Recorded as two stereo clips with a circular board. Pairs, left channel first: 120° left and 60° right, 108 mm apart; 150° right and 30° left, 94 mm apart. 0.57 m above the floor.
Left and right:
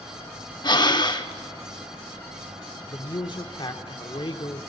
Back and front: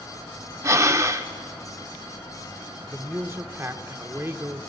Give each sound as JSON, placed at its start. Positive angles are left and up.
{"t": 0.6, "sound": "breathing", "azimuth_deg": 80, "distance_m": 0.7}
{"t": 2.9, "sound": "a man speaking", "azimuth_deg": 90, "distance_m": 1.0}